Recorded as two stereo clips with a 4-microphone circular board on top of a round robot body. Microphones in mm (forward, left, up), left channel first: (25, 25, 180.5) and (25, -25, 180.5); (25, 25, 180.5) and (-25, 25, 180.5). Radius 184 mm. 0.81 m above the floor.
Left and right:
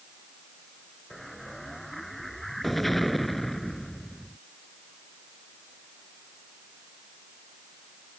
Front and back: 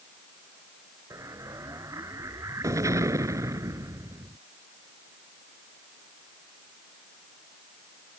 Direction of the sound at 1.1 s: Straight behind.